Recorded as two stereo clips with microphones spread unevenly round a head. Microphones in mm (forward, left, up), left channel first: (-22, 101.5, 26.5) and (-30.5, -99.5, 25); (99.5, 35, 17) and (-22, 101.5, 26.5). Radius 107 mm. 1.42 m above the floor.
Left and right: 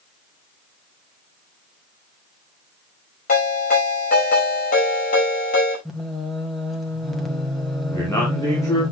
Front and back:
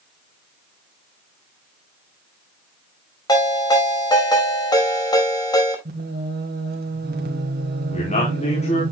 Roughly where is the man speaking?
Ahead.